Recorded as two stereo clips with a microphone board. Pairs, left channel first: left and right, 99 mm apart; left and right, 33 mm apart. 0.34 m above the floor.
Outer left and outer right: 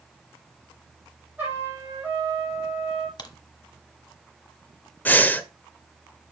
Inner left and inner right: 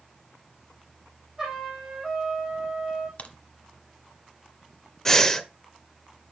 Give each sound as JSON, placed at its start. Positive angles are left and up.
{"t": 1.4, "sound": "a trumpet", "side_deg": -15, "distance_m": 5.0}
{"t": 3.2, "sound": "a crack", "side_deg": 45, "distance_m": 1.0}
{"t": 5.0, "sound": "breathing", "side_deg": 15, "distance_m": 0.7}